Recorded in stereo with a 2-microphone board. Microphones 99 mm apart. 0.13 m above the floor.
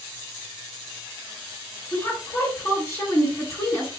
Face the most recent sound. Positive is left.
turn(degrees=35)  # may be behind; listen again after turning